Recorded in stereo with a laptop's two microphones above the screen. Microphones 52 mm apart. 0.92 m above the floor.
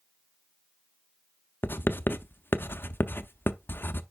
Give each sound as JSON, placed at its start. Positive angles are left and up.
{"t": 1.6, "sound": "writing", "side_deg": 45, "distance_m": 0.5}